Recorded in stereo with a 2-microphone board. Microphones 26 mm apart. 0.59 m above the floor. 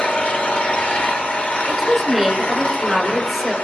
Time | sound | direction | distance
0.0 | an engine running | 55° left (ahead or behind) | 1.9 m
1.7 | a woman speaking | 5° right (ahead or behind) | 3.5 m